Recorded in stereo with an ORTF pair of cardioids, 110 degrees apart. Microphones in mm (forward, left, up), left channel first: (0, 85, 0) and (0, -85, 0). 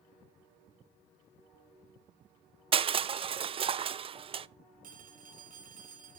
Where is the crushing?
35° right, 0.6 m.